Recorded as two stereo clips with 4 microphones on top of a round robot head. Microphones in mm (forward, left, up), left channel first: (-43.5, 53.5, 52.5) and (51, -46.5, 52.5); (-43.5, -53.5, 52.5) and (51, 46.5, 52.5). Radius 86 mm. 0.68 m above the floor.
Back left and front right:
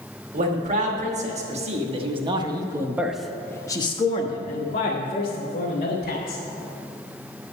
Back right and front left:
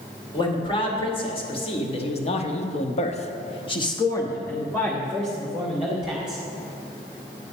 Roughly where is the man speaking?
Right.